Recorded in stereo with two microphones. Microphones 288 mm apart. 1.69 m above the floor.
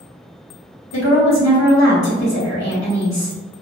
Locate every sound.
0.9 s a woman speaking: 60° left (ahead or behind), 1.1 m